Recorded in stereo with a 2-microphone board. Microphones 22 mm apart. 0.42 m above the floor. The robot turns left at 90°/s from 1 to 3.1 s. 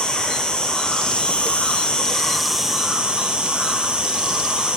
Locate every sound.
0.0 s an insect: 140° left, 0.8 m; by 4.8 s 50° right, 0.8 m